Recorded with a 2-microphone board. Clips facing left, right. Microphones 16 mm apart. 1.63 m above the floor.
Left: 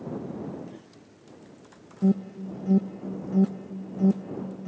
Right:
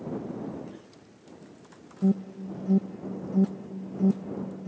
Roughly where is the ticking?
I don't hear ticking.